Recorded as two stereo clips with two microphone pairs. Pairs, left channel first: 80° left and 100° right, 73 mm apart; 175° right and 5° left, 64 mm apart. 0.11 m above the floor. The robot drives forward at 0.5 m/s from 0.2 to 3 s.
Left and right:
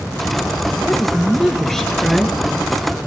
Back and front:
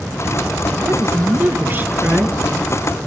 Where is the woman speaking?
Straight ahead, 1.9 m.